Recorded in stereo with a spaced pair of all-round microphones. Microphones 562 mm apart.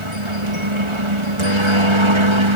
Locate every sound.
0.0 s a helicopter: 60° right (ahead or behind)